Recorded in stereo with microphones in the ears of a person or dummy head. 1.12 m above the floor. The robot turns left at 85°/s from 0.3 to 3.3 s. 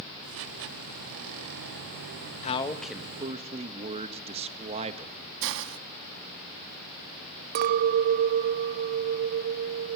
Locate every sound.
2.4 s a man speaking: 35° left, 1.7 m; by 5.1 s 40° right, 1.7 m
5.4 s a hiss: 70° right (ahead or behind), 0.9 m
7.5 s a clink: 45° right (ahead or behind), 0.6 m